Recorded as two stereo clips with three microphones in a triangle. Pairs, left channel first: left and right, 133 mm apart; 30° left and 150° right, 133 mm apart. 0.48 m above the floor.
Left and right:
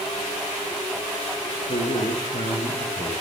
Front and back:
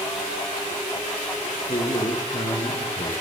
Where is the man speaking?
70° left, 6 m.